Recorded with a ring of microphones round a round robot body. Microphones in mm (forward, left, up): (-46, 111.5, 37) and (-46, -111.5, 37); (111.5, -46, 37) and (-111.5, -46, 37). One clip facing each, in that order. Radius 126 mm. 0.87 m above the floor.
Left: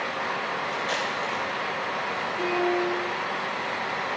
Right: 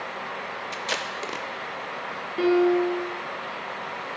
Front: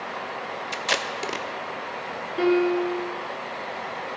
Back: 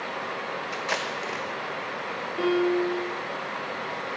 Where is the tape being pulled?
35° right, 0.7 m.